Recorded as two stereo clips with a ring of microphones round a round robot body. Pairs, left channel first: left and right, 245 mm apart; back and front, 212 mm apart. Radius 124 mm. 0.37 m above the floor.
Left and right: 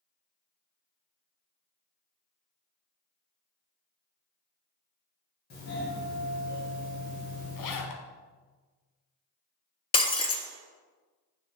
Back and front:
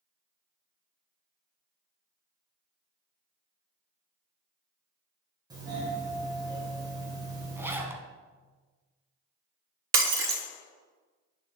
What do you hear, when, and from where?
5.5 s a doorbell: 65° left, 2.5 m
7.6 s a zipper: 80° left, 1.0 m
9.9 s breaking glass: 20° left, 0.8 m